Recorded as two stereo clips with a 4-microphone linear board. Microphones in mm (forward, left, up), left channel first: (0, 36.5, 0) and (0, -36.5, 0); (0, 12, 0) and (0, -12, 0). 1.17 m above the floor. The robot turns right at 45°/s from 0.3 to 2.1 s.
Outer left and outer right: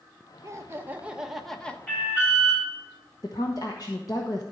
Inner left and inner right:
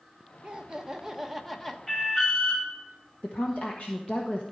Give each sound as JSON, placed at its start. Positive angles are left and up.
{"t": 0.4, "sound": "laughter", "azimuth_deg": -45, "distance_m": 1.2}
{"t": 1.9, "sound": "an alarm", "side_deg": 15, "distance_m": 4.5}
{"t": 3.2, "sound": "a woman speaking", "side_deg": 55, "distance_m": 1.2}